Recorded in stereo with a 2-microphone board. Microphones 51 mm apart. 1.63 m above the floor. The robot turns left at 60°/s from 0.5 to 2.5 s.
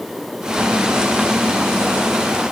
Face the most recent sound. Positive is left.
No sound to turn to.